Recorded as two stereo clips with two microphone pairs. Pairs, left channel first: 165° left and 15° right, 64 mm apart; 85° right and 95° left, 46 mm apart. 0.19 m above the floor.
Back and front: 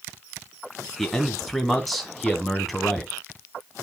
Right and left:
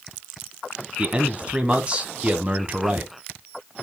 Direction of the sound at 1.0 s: 80° left.